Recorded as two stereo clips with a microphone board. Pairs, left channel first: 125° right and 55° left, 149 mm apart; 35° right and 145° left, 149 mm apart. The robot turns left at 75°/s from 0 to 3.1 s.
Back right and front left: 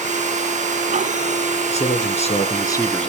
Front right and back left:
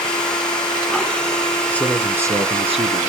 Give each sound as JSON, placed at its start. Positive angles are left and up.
{"t": 1.7, "sound": "a man speaking", "azimuth_deg": -110, "distance_m": 1.9}